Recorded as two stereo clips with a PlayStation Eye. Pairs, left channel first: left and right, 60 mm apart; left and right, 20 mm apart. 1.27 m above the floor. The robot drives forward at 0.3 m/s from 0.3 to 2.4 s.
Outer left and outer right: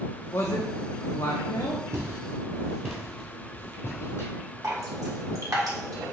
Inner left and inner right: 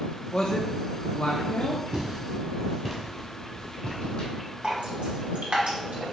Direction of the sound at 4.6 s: 75° right (ahead or behind).